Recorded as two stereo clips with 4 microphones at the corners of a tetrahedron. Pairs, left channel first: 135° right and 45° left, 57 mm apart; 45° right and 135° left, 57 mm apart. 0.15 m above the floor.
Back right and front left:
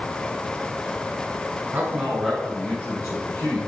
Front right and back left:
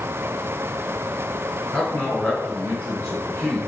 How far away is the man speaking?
About 1.2 m.